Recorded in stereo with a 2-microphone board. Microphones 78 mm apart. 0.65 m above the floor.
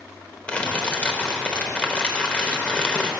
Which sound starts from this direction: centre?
Crumpling, at 0.5 s.